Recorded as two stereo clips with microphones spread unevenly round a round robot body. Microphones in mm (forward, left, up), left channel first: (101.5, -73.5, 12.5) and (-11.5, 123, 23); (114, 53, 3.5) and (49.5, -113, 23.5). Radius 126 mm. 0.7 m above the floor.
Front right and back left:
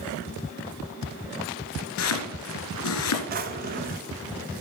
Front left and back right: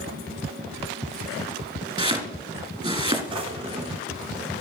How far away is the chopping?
About 2 m.